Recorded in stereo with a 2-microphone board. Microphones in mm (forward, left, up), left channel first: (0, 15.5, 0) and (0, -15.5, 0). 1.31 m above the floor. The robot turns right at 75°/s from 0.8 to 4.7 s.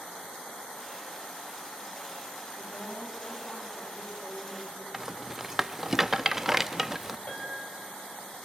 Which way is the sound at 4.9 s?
10° right (ahead or behind).